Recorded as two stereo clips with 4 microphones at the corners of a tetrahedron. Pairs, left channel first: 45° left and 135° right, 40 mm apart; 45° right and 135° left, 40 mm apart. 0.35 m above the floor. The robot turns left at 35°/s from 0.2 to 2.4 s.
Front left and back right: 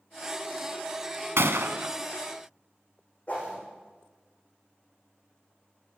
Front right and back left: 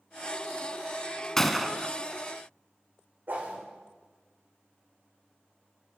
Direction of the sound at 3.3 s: 105° left.